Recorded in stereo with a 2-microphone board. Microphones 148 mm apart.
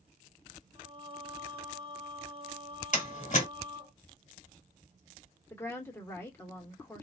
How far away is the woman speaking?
About 1.3 m.